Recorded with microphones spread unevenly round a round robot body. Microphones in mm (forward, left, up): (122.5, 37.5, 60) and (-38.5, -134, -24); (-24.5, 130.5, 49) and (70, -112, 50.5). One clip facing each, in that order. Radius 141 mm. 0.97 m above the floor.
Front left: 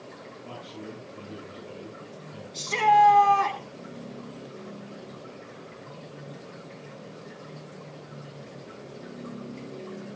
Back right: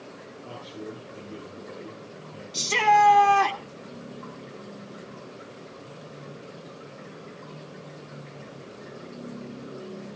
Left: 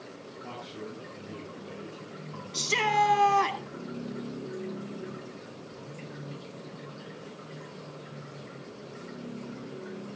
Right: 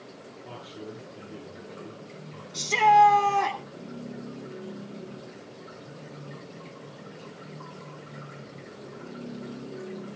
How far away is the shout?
About 2.5 m.